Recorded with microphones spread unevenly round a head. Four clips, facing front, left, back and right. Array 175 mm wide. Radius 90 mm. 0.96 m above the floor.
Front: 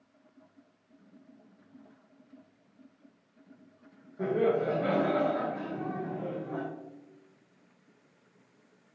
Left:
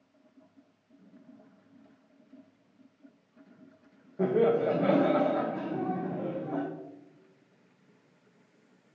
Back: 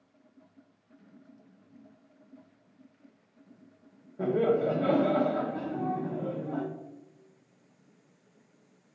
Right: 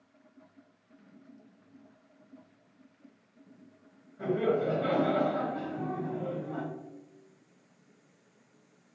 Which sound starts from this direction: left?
Laughter, at 4.2 s.